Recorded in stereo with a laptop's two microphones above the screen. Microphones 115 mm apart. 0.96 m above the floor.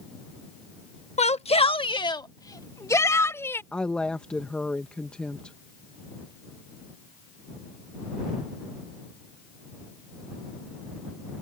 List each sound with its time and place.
1.2 s a shout: 75° left (ahead or behind); by 3.6 s 20° left (ahead or behind)
3.7 s a woman speaking: 10° left (ahead or behind)